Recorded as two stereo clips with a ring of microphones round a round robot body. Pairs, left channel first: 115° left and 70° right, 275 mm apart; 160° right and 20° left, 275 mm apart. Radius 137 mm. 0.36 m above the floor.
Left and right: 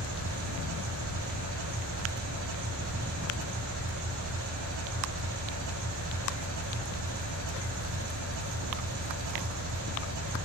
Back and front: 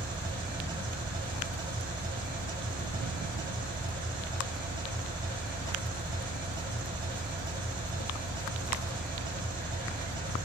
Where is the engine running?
50° right, 6.5 m.